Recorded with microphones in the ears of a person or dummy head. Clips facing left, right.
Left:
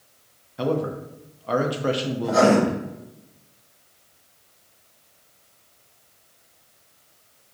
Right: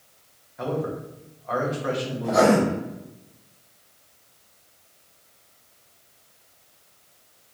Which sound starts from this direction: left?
A man speaking, at 0.6 s.